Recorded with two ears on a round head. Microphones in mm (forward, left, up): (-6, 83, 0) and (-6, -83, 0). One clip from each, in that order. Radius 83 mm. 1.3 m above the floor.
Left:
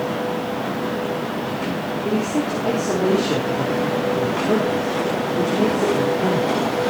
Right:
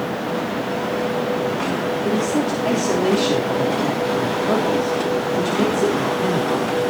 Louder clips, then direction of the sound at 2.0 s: Even; 60° right (ahead or behind).